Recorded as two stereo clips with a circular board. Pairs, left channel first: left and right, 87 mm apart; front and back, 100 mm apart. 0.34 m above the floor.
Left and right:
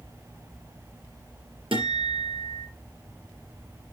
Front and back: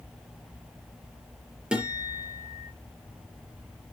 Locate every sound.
1.7 s a guitar: 100° right, 4.5 m